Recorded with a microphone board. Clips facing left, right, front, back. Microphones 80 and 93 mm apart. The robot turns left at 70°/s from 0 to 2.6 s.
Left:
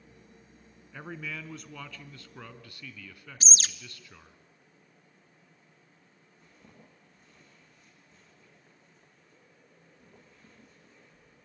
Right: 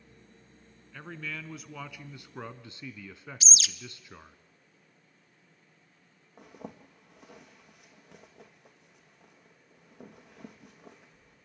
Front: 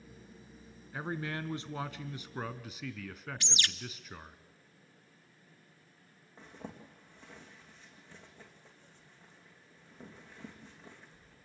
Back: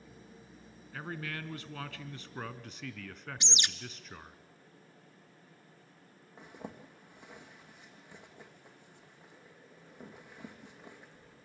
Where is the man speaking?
35° left, 1.1 m; by 4.4 s 80° right, 1.1 m.